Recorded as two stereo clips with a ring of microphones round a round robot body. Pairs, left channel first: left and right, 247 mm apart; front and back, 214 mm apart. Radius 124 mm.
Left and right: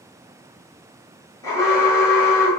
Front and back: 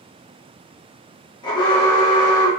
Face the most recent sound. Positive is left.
turn(degrees=30)